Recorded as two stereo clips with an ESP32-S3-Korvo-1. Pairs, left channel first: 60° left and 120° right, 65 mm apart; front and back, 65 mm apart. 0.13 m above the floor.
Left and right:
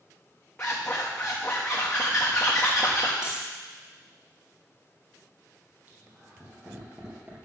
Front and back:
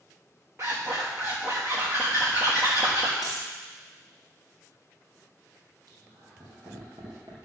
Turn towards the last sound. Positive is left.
turn(degrees=170)